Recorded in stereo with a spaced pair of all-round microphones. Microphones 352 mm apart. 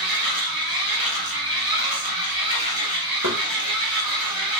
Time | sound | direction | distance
0.0 | a machine running | 80° right | 2.5 m
3.2 | knocking | 55° right (ahead or behind) | 2.5 m